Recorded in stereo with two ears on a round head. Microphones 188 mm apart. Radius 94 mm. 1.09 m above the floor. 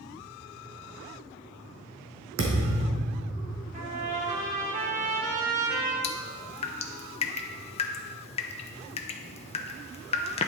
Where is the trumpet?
35° right (ahead or behind), 1.6 m.